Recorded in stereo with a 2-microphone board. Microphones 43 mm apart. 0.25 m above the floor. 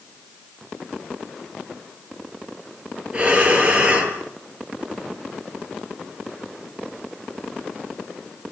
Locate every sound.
3.1 s breathing: 20° right (ahead or behind), 5.5 m